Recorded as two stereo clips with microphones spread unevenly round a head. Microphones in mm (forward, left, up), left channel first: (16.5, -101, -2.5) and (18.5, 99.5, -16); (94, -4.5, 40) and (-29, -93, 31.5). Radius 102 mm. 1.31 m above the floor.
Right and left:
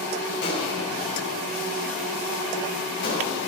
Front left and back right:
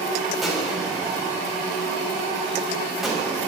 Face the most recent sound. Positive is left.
turn(degrees=-55)